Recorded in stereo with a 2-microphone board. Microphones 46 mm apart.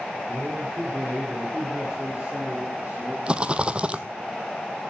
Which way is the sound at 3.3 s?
25° right (ahead or behind).